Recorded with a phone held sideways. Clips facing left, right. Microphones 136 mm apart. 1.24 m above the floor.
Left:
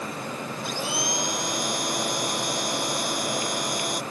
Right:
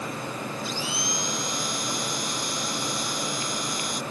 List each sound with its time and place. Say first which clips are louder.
0.6 s a blender: left 2 dB; 55° left (ahead or behind)